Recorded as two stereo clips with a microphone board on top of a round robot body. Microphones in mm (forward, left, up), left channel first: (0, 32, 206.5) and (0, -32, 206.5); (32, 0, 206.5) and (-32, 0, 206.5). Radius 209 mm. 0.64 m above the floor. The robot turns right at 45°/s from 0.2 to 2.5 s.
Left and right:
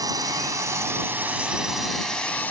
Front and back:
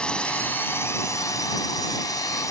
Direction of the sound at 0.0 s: 75° right.